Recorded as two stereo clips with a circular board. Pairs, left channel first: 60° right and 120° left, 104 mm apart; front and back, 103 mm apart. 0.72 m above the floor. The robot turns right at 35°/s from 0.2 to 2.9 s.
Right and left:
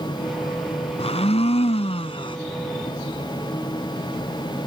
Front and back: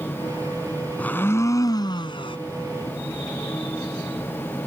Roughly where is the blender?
Right.